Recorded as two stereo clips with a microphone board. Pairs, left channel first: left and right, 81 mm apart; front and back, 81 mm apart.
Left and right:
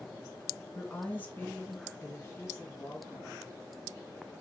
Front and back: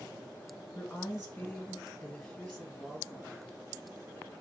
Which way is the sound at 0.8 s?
45° left.